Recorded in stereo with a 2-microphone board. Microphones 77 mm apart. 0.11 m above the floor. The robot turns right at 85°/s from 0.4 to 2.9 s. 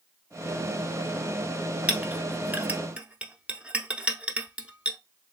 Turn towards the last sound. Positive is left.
turn(degrees=-15)  # may be behind; listen again after turning